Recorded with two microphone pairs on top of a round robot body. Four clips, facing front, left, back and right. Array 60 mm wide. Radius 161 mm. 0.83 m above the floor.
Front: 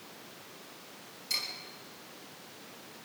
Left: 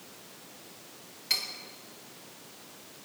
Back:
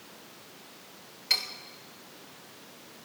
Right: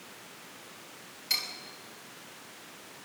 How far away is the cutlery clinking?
About 2.5 m.